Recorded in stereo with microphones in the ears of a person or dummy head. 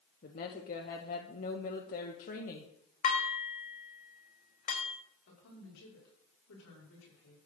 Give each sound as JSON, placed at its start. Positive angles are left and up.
{"t": 0.2, "sound": "a woman speaking", "side_deg": 45, "distance_m": 1.3}
{"t": 3.0, "sound": "dishes clattering", "side_deg": 45, "distance_m": 3.5}
{"t": 5.3, "sound": "a woman speaking", "side_deg": 80, "distance_m": 5.5}